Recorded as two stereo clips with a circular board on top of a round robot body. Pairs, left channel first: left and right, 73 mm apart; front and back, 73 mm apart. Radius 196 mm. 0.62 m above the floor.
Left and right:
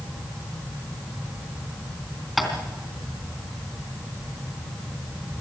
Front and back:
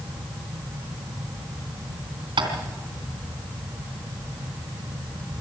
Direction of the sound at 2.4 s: Straight behind.